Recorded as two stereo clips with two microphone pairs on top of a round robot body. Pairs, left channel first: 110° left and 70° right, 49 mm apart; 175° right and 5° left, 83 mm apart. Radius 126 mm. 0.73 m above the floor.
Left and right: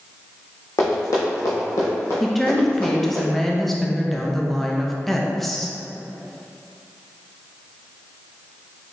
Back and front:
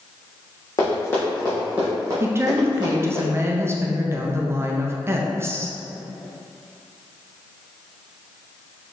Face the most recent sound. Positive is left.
turn(degrees=35)